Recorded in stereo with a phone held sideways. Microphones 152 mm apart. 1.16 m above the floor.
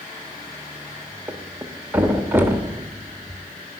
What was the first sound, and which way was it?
A thud, 15° right (ahead or behind).